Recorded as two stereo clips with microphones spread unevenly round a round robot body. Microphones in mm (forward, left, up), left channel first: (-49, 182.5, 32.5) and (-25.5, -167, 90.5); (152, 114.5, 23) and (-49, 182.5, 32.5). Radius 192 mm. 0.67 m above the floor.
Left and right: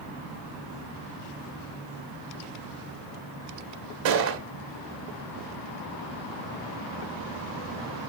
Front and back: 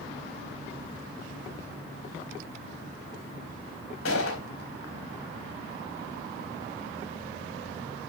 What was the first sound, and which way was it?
A gunshot, 75° right.